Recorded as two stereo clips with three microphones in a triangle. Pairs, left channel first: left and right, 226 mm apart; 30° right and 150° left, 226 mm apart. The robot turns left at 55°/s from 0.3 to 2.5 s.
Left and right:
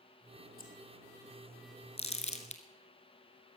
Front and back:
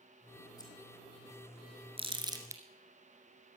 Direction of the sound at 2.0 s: 115° left.